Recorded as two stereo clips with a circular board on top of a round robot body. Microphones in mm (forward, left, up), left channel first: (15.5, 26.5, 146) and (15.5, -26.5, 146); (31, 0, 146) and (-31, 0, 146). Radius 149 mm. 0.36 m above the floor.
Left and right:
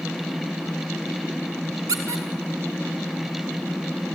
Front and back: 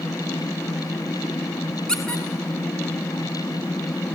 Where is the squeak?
80° right, 1.0 m.